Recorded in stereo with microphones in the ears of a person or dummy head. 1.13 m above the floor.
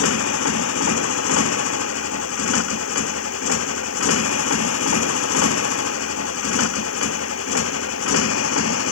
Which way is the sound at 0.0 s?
85° left.